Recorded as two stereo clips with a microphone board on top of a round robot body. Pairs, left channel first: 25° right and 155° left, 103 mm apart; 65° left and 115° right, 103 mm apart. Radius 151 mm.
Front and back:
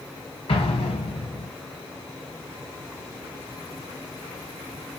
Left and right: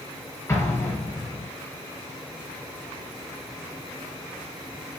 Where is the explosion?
5° left, 5 m.